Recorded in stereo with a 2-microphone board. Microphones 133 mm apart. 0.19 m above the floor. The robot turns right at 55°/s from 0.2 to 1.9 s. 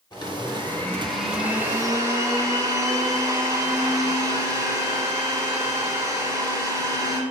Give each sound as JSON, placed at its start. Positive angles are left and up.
{"t": 0.1, "sound": "a blender", "azimuth_deg": 125, "distance_m": 1.7}